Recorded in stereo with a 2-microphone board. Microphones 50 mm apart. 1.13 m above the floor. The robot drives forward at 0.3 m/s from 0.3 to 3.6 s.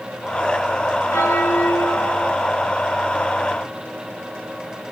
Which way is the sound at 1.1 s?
80° left.